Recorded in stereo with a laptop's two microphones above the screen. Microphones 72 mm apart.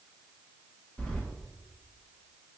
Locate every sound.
1.0 s keys jangling: 15° left (ahead or behind), 0.6 m